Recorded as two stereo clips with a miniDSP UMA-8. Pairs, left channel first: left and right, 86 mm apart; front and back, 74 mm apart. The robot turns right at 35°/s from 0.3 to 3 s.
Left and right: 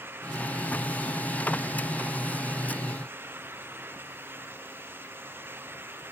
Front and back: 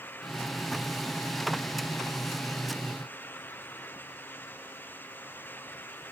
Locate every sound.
Only background noise.